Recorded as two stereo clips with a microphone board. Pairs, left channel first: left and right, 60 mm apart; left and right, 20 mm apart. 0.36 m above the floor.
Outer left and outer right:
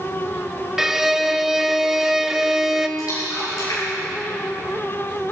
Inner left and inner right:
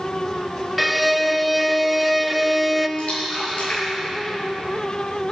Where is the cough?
I don't hear a cough.